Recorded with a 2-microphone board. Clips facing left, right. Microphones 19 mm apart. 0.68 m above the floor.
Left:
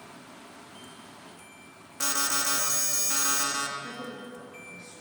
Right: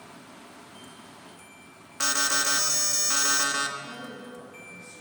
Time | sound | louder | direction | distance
2.0 | an alarm | right 3 dB | 20° right (ahead or behind) | 1.2 m
3.8 | a woman speaking | left 1 dB | 65° left (ahead or behind) | 6.5 m